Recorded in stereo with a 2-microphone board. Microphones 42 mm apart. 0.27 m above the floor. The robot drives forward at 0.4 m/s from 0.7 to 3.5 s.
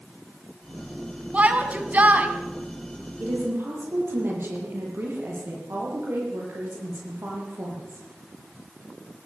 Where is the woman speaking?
65° right (ahead or behind), 9 m.